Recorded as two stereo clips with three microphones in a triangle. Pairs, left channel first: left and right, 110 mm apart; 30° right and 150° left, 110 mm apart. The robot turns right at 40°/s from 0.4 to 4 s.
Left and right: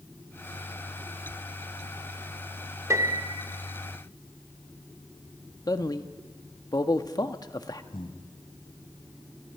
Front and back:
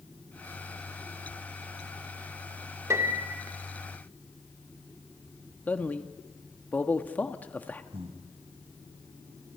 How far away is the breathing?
About 2.5 m.